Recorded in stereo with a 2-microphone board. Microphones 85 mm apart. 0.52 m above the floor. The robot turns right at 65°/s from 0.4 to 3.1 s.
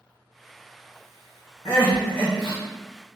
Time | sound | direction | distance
1.6 | crying | 60° left | 1.4 m